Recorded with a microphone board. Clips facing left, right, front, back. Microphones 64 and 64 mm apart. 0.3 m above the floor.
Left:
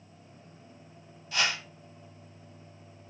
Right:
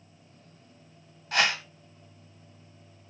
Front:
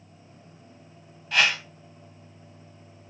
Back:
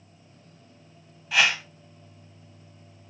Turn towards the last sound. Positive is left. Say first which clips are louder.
# right 4 dB, even
turn(degrees=-95)